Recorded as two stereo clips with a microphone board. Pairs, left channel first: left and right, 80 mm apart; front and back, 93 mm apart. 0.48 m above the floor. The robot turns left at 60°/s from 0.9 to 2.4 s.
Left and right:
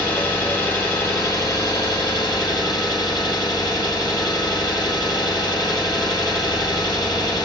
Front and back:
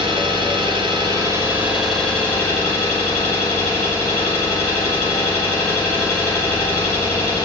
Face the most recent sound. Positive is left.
turn(degrees=60)